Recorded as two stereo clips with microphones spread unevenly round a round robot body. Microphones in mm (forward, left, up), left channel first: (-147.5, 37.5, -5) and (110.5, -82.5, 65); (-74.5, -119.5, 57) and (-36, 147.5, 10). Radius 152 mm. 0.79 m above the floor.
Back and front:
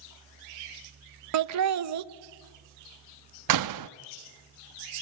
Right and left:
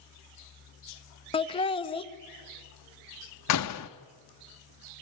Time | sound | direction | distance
1.3 | laughter | 25° right | 0.8 m
3.5 | a door slam | 55° right | 0.8 m